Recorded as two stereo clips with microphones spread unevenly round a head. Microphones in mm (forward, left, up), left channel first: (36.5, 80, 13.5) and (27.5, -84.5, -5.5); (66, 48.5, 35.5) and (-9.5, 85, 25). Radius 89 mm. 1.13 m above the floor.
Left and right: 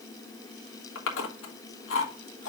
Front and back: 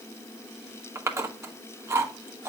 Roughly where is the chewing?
Left.